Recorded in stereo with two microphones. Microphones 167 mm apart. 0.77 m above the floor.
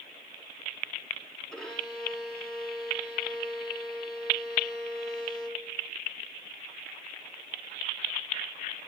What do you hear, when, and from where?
1.5 s a violin: centre (ahead or behind), 5.5 m